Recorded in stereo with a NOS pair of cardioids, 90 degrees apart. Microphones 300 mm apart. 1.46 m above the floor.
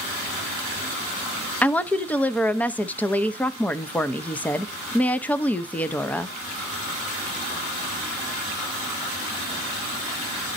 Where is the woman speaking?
5° left, 0.5 m.